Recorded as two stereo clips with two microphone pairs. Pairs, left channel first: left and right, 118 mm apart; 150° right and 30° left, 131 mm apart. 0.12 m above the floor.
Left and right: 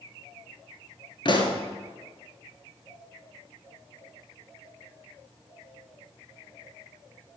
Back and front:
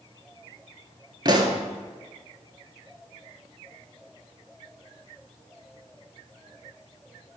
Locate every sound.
1.2 s a pop: 70° left, 0.8 m